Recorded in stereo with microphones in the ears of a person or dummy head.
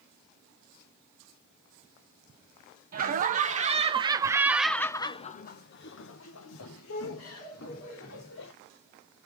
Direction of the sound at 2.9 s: 45° right (ahead or behind).